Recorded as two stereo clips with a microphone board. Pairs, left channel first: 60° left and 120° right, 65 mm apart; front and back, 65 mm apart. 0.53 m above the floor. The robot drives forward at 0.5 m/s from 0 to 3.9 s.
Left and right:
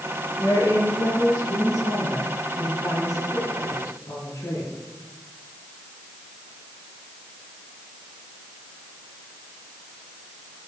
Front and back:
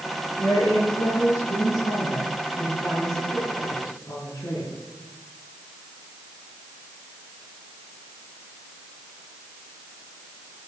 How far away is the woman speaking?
About 9.5 m.